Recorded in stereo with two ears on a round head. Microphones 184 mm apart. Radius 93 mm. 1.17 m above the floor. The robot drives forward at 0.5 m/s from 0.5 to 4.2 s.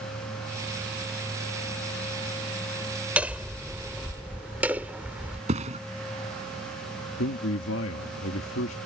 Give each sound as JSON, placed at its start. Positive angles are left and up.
{"t": 3.2, "sound": "hammering", "side_deg": -5}
{"t": 5.5, "sound": "a thud", "side_deg": -35}
{"t": 7.2, "sound": "a man speaking", "side_deg": 65}